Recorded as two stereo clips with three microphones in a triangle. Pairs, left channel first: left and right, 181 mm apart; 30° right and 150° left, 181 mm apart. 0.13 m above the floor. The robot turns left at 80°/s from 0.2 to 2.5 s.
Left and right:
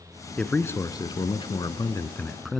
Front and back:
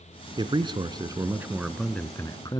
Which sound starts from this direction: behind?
A man speaking, at 0.4 s.